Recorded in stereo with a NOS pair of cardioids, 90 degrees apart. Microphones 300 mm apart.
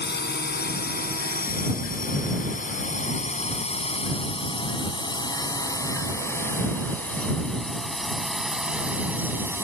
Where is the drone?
35° left; by 9.6 s 10° right.